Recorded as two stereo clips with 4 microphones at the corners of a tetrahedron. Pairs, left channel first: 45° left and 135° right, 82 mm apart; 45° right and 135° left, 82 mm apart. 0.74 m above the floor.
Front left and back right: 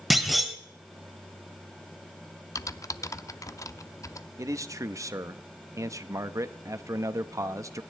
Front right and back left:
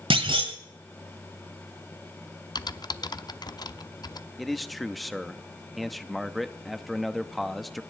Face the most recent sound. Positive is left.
turn(degrees=-135)